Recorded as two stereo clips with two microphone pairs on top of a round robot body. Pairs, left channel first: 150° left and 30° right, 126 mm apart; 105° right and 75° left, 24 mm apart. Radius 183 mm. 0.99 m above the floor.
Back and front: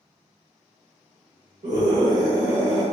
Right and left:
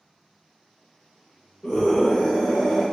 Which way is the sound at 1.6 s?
55° right.